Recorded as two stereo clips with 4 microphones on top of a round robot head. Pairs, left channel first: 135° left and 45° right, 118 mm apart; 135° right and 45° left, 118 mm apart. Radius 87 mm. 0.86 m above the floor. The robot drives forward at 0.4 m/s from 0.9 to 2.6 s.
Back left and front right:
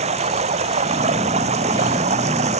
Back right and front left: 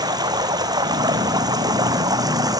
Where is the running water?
15° right.